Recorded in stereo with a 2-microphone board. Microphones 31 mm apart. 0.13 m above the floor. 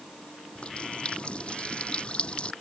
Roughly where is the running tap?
Left.